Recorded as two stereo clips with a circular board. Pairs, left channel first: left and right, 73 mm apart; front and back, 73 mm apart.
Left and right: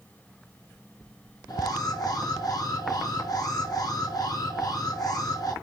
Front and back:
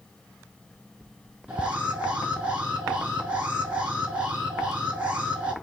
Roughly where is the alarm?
Behind left.